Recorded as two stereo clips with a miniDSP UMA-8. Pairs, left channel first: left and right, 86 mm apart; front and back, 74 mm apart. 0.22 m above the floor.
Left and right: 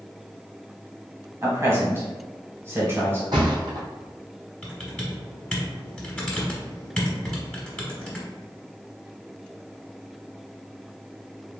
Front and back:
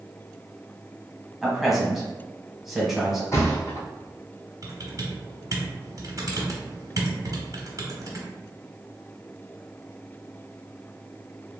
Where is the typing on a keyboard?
165° left, 1.2 m.